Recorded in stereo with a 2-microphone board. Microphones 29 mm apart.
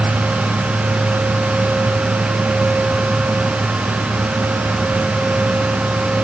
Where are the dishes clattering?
I don't hear dishes clattering.